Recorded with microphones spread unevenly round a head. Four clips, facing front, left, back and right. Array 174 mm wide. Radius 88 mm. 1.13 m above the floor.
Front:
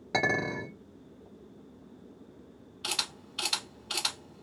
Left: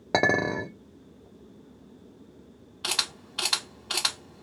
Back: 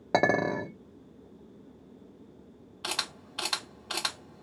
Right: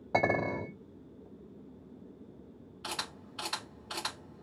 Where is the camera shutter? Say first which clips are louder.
Left 5 dB, back 2 dB; 145° left, 1.4 m.